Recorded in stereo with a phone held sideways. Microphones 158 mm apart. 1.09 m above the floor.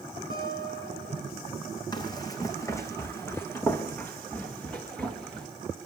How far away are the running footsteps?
About 2.5 m.